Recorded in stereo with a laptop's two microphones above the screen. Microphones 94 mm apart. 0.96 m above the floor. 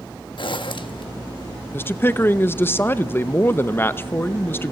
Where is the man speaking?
25° left (ahead or behind), 0.7 m.